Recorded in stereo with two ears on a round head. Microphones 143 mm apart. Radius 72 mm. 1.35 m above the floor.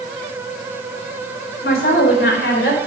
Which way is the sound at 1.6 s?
70° left (ahead or behind).